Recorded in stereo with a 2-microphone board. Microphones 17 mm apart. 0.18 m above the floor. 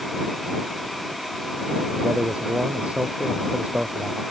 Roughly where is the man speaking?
Right.